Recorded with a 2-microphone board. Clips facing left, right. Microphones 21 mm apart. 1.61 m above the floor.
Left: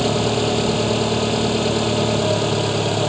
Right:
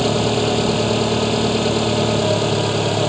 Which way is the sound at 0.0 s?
5° right (ahead or behind).